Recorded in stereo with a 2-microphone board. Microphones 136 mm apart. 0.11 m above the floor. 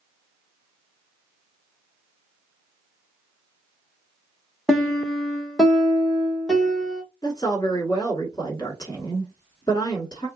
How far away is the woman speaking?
About 1.4 m.